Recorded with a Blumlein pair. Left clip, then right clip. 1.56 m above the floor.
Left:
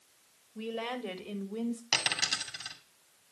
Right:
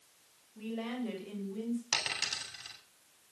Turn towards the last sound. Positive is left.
turn(degrees=25)